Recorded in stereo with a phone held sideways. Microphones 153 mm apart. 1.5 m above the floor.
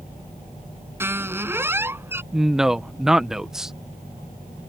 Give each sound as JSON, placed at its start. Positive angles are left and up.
{"t": 1.0, "sound": "a squeak", "side_deg": -15}
{"t": 2.3, "sound": "a man speaking", "side_deg": -5}